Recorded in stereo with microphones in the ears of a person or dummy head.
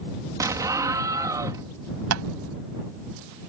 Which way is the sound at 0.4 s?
20° right (ahead or behind).